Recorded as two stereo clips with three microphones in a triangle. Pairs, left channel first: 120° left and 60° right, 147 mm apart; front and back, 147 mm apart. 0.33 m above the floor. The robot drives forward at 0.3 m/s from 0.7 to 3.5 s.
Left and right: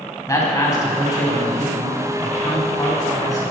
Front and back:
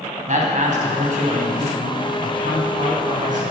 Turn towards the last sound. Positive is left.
turn(degrees=180)